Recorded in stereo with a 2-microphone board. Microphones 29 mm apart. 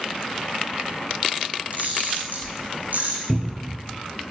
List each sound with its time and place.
1.7 s a camera shutter: 75° right (ahead or behind), 3.5 m
3.3 s a cupboard door: 25° right (ahead or behind), 1.1 m